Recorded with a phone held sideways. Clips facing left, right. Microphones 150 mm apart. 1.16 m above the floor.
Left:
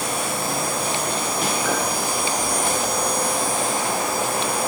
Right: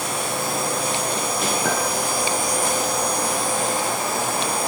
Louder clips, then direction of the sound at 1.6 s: Even; 50° right (ahead or behind).